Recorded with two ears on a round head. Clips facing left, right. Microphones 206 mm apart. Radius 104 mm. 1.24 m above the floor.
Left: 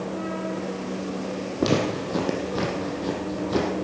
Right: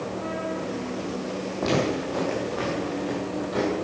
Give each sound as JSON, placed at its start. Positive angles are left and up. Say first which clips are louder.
{"t": 1.6, "sound": "footsteps", "louder": "left 1 dB", "side_deg": 35, "distance_m": 3.0}